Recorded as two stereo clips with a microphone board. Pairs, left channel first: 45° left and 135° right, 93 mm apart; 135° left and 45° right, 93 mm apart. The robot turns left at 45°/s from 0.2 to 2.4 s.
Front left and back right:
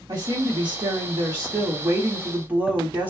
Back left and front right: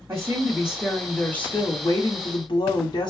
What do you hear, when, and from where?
0.1 s a woman speaking: 105° right, 1.2 m; by 3.1 s 155° left, 1.2 m